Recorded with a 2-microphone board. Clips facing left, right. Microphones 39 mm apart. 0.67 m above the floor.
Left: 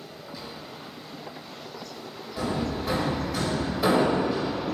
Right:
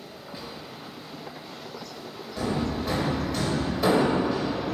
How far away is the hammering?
About 3 m.